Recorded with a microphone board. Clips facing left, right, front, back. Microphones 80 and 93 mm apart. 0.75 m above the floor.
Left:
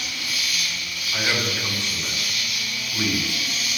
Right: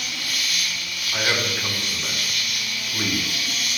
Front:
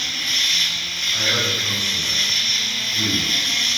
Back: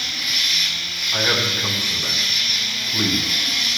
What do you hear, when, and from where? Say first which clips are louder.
0.0 s an insect: even, front 1 dB; 95° right, 5.5 m
1.1 s a man speaking: right 1 dB, back 2 dB; 170° right, 5 m